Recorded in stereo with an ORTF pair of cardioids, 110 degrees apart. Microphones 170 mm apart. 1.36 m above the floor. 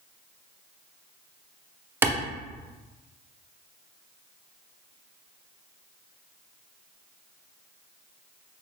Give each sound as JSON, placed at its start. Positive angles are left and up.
{"t": 2.0, "sound": "a clap", "azimuth_deg": -10, "distance_m": 0.6}